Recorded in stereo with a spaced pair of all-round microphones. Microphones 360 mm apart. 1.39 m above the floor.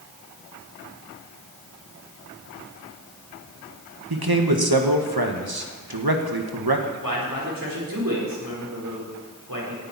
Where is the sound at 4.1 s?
85° right, 1.7 m.